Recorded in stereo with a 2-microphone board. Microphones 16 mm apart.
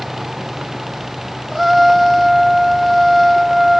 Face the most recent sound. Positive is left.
turn(degrees=-5)  # may be behind; listen again after turning